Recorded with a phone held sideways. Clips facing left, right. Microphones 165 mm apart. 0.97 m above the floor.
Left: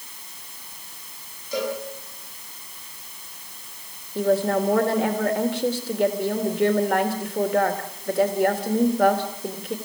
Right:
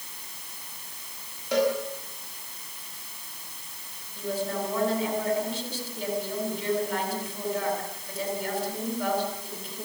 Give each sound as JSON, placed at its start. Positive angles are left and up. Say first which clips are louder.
{"t": 1.5, "sound": "a cowbell", "louder": "right 3 dB", "side_deg": -70, "distance_m": 7.5}
{"t": 4.2, "sound": "a woman speaking", "louder": "left 10 dB", "side_deg": 70, "distance_m": 3.0}